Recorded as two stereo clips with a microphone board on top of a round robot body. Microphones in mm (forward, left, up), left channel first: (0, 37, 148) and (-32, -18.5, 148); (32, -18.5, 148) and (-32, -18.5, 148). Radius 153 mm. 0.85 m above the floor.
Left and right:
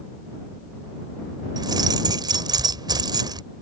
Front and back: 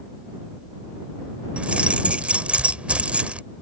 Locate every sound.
1.6 s keys jangling: 110° right